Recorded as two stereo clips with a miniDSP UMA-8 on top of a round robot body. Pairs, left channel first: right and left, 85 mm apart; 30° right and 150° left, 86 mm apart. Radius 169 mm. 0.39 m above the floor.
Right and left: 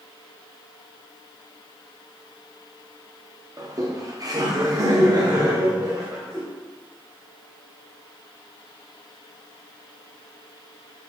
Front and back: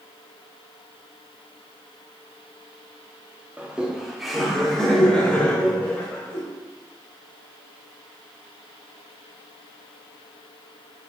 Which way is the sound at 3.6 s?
80° left.